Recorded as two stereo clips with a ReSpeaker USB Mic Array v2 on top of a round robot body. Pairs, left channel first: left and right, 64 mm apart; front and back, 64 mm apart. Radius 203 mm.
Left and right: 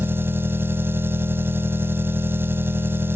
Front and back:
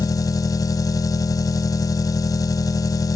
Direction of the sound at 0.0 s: 30° right.